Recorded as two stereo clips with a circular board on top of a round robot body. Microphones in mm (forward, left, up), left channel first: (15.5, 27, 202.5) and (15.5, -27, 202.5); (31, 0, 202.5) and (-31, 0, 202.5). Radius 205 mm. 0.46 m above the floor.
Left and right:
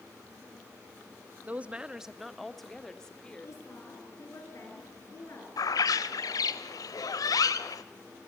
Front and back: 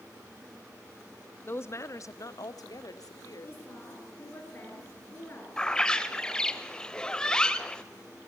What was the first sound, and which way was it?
A woman speaking, 40° right.